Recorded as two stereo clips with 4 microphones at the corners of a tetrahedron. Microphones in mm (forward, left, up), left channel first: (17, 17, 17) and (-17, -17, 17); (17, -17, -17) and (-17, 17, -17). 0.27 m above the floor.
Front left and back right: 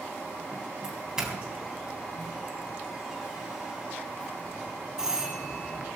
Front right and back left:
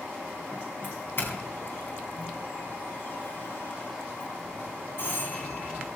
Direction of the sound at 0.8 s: 65° right.